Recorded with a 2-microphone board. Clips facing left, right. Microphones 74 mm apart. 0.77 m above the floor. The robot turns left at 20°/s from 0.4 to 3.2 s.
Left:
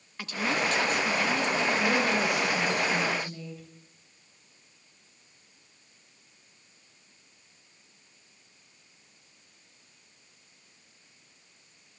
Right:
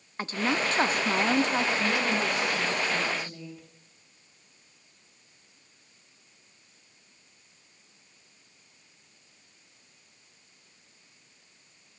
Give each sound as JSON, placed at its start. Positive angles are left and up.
{"t": 0.2, "sound": "a woman speaking", "side_deg": -35, "distance_m": 0.5}
{"t": 1.8, "sound": "a woman speaking", "side_deg": 25, "distance_m": 3.5}